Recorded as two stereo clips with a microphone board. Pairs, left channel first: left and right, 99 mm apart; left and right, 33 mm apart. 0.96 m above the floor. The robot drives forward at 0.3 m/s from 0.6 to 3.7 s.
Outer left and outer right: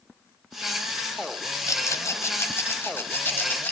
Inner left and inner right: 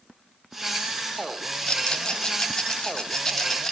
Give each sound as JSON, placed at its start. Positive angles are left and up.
{"t": 1.7, "sound": "a rattle", "side_deg": 30, "distance_m": 0.9}